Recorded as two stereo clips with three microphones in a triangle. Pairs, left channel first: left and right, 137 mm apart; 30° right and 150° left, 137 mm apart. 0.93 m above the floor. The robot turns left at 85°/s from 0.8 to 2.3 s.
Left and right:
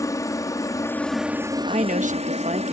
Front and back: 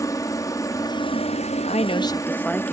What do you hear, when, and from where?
0.0 s a helicopter: 30° left; by 2.7 s 100° right
1.7 s a woman speaking: 55° right; by 2.7 s 110° right